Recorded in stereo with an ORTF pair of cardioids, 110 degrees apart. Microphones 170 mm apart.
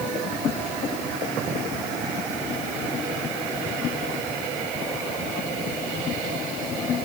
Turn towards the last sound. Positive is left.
No sound to turn to.